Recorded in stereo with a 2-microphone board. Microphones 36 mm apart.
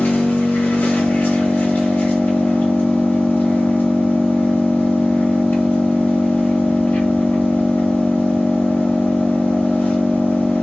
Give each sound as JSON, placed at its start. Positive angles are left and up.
{"t": 0.0, "sound": "an engine running", "side_deg": 70, "distance_m": 0.9}